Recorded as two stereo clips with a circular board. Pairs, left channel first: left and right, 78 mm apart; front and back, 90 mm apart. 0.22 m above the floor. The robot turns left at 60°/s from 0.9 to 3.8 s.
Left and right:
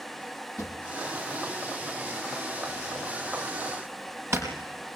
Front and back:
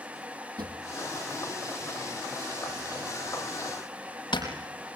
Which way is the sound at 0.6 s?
140° left.